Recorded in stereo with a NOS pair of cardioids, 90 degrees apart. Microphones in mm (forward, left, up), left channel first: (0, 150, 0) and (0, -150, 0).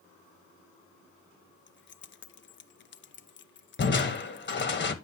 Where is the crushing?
35° left, 1.3 m.